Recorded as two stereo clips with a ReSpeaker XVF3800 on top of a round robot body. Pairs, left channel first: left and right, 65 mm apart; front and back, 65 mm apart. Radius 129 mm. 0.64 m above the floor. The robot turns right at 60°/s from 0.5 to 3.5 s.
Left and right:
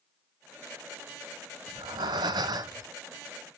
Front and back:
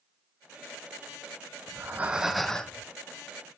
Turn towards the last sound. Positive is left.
turn(degrees=-20)